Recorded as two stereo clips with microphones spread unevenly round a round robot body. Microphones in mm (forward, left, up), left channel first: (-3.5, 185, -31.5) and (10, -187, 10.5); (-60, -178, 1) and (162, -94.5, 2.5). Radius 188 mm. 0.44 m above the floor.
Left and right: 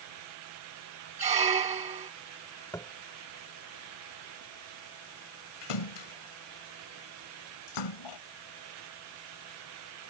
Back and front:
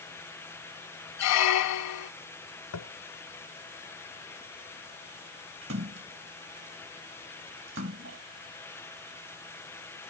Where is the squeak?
165° right.